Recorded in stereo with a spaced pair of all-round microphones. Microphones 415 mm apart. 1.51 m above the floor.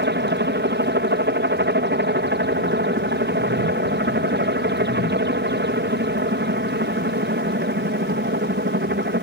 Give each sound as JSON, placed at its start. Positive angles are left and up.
{"t": 0.0, "sound": "a helicopter", "side_deg": -25}